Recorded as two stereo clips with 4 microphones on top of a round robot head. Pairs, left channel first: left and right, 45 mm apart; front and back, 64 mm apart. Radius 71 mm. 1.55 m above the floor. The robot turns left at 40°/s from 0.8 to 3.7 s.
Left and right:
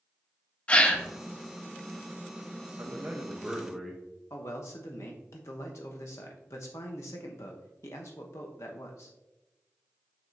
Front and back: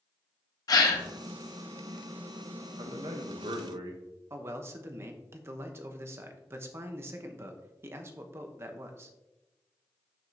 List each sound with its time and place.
0.7 s a gasp: 25° left, 1.0 m; by 1.1 s 15° left, 1.0 m
2.8 s a man speaking: 145° right, 0.8 m; by 4.0 s 175° left, 0.8 m
4.3 s a man speaking: 130° left, 0.8 m